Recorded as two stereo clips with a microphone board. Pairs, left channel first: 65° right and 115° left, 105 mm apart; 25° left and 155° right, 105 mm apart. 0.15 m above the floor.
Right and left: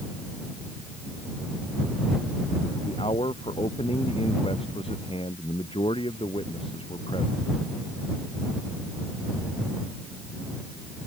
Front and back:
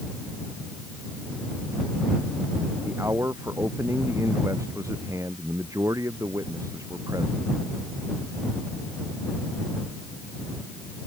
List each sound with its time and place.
2.9 s a man speaking: 90° right; by 7.4 s 100° right